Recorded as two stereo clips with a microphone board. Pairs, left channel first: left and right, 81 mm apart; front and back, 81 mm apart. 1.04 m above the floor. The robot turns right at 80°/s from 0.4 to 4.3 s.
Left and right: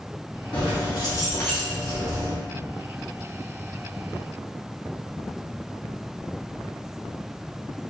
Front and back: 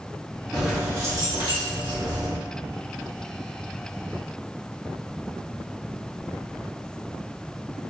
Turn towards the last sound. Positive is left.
turn(degrees=30)